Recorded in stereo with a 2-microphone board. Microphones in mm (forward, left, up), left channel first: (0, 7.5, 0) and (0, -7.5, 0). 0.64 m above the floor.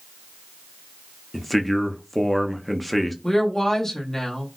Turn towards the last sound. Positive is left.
turn(degrees=35)  # may be behind; listen again after turning